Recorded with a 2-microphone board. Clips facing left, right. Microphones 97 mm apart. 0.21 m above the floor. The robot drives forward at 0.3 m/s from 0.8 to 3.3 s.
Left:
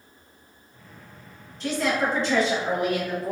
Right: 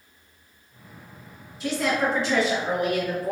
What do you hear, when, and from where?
1.6 s a woman speaking: 5° right (ahead or behind), 1.9 m